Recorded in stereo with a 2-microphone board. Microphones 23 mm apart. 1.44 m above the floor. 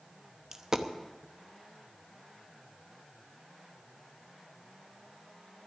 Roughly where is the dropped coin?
Right.